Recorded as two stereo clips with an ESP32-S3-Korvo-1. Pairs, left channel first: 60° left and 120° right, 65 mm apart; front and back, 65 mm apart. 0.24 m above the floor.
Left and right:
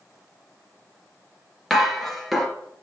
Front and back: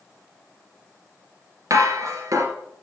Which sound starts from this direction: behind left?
Dishes clattering, at 1.7 s.